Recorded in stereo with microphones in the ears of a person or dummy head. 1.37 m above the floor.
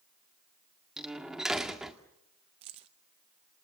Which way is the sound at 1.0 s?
Centre (ahead or behind).